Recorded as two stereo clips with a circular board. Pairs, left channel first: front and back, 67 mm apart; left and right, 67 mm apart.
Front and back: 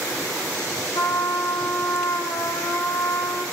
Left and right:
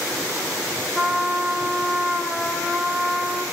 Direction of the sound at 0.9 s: 5° left.